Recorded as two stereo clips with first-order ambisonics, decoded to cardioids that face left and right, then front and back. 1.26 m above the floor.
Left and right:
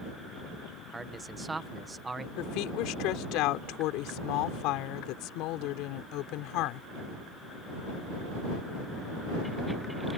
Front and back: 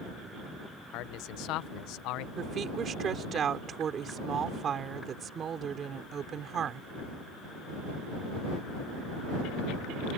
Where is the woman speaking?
120° left.